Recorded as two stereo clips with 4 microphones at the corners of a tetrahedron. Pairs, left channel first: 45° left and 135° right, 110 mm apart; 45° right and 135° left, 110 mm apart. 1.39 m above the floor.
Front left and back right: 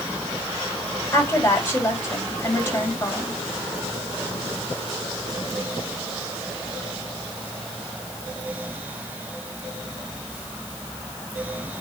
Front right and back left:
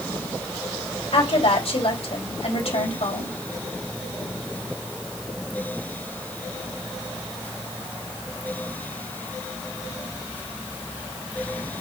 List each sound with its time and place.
1.1 s a woman speaking: 20° right, 3.5 m